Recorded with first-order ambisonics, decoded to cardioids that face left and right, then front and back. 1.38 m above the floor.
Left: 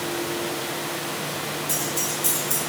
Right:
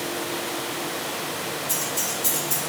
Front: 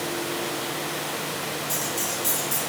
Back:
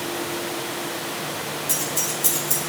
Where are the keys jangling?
165° left, 1.7 m.